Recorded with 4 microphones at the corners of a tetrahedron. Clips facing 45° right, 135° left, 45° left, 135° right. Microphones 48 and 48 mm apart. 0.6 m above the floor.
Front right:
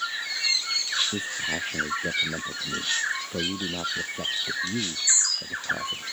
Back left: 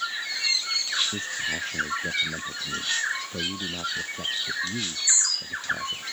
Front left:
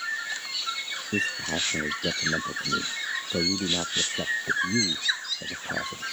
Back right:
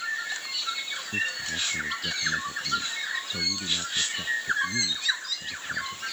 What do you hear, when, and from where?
1.1 s a man speaking: 30° left